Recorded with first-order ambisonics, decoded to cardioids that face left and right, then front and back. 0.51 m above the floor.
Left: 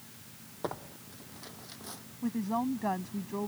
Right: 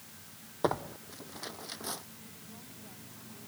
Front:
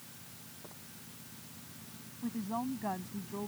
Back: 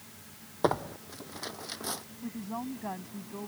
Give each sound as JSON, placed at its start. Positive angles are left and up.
{"t": 0.6, "sound": "tearing paper", "azimuth_deg": -160}
{"t": 2.2, "sound": "a woman speaking", "azimuth_deg": 85}